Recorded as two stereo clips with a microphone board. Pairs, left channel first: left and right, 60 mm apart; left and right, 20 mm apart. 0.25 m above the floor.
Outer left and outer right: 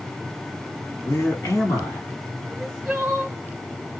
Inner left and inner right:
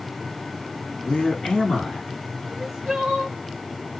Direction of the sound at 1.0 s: 55° left (ahead or behind).